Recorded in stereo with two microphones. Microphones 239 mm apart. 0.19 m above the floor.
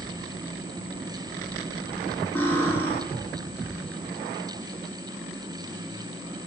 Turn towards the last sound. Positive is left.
turn(degrees=10)  # may be behind; listen again after turning